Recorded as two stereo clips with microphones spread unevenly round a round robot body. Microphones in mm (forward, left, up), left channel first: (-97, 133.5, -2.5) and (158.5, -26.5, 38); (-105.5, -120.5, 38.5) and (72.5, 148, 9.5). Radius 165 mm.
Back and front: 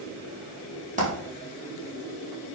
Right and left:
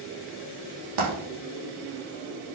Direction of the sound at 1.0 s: 35° left.